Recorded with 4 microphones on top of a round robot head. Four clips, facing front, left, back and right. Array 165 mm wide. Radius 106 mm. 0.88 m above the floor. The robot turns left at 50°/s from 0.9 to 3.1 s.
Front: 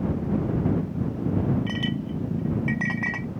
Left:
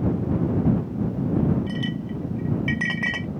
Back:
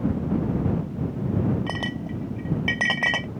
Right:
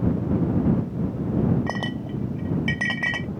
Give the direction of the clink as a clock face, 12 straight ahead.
4 o'clock.